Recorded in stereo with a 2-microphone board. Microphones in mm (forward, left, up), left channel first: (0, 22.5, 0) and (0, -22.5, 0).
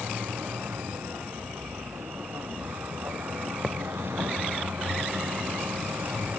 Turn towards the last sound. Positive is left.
turn(degrees=-70)  # may be behind; listen again after turning